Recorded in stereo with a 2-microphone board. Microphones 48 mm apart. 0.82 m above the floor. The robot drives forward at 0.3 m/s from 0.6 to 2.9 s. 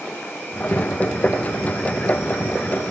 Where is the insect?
60° left (ahead or behind), 3 m; by 2.9 s 65° left (ahead or behind), 3 m.